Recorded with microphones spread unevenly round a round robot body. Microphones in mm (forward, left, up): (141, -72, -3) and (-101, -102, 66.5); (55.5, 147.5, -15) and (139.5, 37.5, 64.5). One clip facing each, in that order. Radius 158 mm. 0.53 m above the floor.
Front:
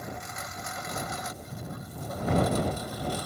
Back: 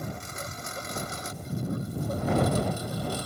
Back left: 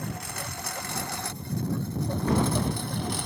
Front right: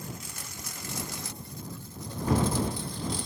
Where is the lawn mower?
120° left.